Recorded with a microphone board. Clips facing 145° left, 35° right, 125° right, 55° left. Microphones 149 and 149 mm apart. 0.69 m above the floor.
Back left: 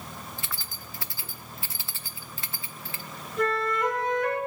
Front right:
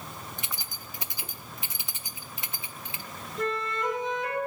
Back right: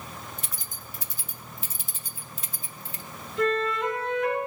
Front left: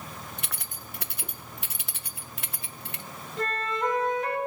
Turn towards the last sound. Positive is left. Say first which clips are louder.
# back left 4 dB, back right 5 dB
turn(degrees=110)